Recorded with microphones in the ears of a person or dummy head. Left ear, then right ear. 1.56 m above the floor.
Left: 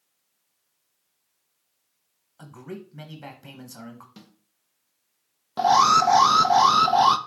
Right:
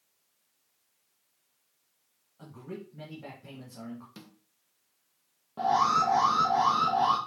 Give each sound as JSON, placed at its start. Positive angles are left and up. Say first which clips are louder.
{"t": 2.4, "sound": "a man speaking", "louder": "left 3 dB", "side_deg": 55, "distance_m": 1.4}
{"t": 4.2, "sound": "a snare drum", "louder": "even", "side_deg": -5, "distance_m": 1.0}
{"t": 5.6, "sound": "an alarm", "louder": "left 7 dB", "side_deg": 70, "distance_m": 0.6}